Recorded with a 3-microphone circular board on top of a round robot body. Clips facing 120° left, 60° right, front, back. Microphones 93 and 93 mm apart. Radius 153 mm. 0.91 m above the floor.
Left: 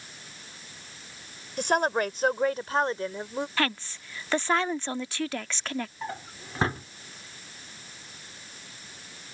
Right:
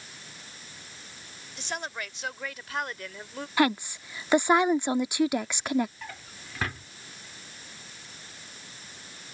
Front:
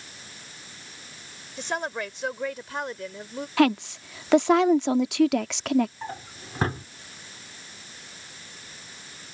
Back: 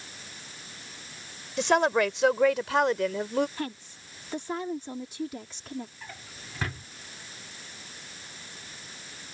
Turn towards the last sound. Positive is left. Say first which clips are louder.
# left 7 dB, front 9 dB
turn(degrees=60)